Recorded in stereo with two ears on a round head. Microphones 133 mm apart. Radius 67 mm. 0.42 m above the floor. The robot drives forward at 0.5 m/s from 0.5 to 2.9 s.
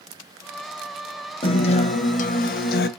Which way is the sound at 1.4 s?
35° left (ahead or behind).